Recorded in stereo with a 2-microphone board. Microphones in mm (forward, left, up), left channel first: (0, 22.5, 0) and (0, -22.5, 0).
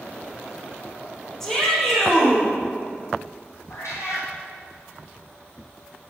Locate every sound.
1.4 s a shout: 10° left (ahead or behind), 4 m
3.7 s a cat meowing: 80° left, 2.5 m